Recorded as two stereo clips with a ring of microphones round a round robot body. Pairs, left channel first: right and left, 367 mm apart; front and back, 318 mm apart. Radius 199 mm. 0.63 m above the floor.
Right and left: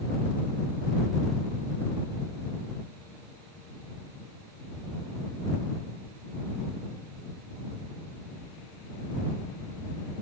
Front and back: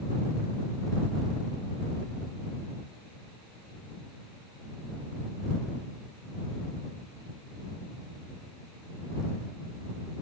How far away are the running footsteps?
I don't hear running footsteps.